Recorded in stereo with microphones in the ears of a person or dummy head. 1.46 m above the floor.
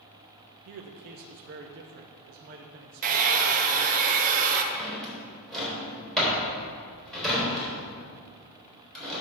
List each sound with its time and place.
0.7 s a man speaking: 50° right (ahead or behind), 0.6 m
3.0 s a hair dryer: 40° right (ahead or behind), 1.0 m
4.7 s a drawer: 5° left (ahead or behind), 3.5 m